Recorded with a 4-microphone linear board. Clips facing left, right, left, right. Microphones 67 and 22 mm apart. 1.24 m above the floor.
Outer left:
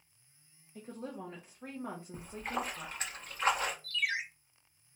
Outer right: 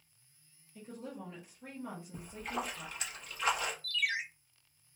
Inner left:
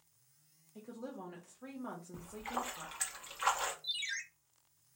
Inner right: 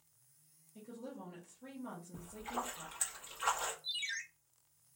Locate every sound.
0.8 s a woman speaking: 40° left (ahead or behind), 0.6 m
2.1 s a splash: 40° left (ahead or behind), 0.7 m
3.8 s a ringtone: 25° left (ahead or behind), 0.9 m